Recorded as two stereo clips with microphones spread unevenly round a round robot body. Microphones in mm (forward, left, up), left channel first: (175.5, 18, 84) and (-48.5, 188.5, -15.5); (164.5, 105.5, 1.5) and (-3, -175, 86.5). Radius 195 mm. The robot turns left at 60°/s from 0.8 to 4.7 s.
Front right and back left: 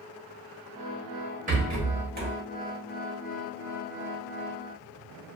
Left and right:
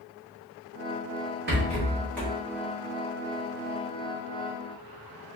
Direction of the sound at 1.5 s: 175° left.